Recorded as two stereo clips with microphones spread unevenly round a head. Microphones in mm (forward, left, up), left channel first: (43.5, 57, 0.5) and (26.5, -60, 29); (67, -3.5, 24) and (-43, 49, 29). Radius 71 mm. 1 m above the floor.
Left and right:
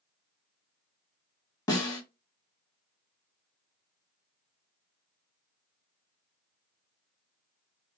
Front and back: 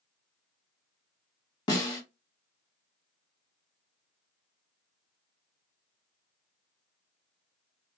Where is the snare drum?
30° left, 1.5 m.